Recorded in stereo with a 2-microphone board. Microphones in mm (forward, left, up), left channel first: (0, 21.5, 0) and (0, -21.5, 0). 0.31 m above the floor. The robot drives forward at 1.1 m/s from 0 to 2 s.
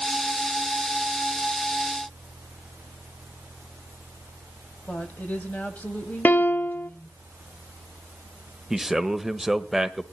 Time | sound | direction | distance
4.9 | a woman speaking | 40° left (ahead or behind) | 1.8 m
6.2 | a piano | 45° left (ahead or behind) | 0.5 m
8.7 | a man speaking | 10° right (ahead or behind) | 0.9 m